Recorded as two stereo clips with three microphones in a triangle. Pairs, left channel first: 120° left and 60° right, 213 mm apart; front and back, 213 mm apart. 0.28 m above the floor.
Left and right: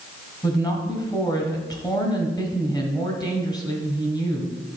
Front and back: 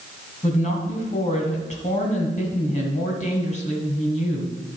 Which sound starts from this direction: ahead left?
A woman speaking, at 0.4 s.